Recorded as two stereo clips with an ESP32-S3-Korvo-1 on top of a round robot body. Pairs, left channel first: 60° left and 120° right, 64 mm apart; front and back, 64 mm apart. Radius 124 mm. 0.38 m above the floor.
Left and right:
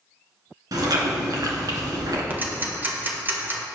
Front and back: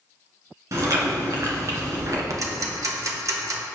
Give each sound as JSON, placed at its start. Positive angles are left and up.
{"t": 0.7, "sound": "chewing", "azimuth_deg": -145, "distance_m": 2.5}
{"t": 2.3, "sound": "ticking", "azimuth_deg": -175, "distance_m": 1.7}